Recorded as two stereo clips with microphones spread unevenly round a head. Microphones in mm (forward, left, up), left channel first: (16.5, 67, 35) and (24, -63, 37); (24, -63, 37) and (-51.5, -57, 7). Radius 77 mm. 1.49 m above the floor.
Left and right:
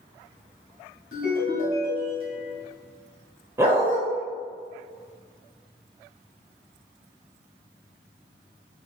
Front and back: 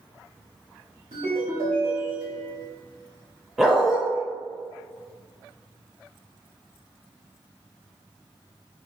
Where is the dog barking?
45° right, 0.9 m.